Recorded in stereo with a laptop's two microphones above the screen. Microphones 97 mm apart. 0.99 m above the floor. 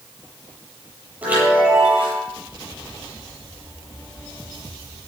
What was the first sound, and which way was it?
A chime, 20° right (ahead or behind).